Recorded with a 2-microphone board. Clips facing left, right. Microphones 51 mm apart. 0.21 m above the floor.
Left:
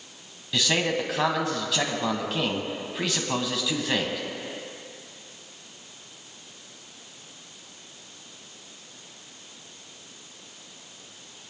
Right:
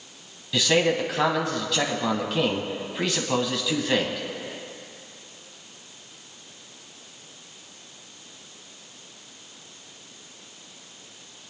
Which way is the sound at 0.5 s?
Centre (ahead or behind).